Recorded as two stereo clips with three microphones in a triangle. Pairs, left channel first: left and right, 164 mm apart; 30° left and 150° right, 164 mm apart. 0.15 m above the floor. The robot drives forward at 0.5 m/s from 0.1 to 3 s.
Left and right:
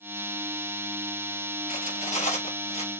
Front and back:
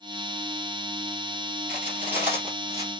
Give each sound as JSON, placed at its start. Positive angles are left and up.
{"t": 1.7, "sound": "cutlery clinking", "azimuth_deg": 130, "distance_m": 1.9}